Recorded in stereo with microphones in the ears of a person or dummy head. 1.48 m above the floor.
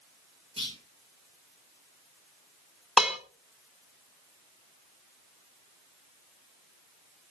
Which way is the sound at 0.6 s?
35° right (ahead or behind).